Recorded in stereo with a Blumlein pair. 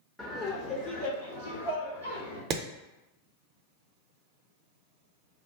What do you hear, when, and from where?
0.2 s laughter: 5° left, 0.6 m; by 2.4 s 75° left, 1.3 m
2.5 s hammering: 35° right, 0.6 m